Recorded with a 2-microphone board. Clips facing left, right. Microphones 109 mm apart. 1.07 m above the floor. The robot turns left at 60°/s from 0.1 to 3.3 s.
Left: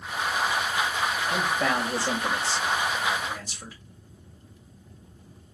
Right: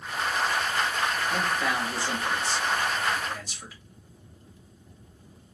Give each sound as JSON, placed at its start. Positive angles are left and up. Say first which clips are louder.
{"t": 1.3, "sound": "a man speaking", "louder": "left 2 dB", "azimuth_deg": 155, "distance_m": 2.0}